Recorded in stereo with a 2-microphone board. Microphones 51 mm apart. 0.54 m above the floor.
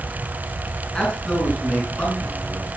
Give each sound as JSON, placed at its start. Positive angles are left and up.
{"t": 0.9, "sound": "a man speaking", "side_deg": 10, "distance_m": 7.0}